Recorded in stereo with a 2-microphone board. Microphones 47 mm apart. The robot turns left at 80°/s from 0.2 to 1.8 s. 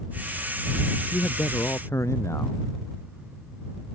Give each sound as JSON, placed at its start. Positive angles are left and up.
{"t": 1.1, "sound": "a man speaking", "azimuth_deg": 140}